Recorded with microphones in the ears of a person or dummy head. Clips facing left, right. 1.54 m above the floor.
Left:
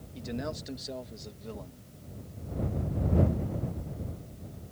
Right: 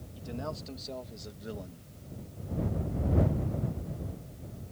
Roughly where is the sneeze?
I don't hear a sneeze.